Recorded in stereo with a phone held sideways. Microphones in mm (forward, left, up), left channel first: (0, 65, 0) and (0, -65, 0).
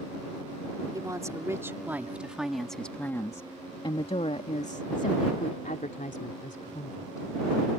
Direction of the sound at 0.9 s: 25° right (ahead or behind).